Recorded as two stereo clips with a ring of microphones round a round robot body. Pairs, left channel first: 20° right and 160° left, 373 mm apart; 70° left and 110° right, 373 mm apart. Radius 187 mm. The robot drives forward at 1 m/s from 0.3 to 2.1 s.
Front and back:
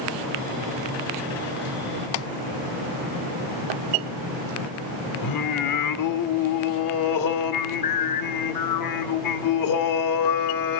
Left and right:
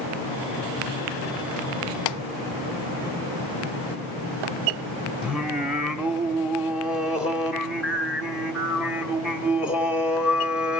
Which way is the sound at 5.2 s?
25° right.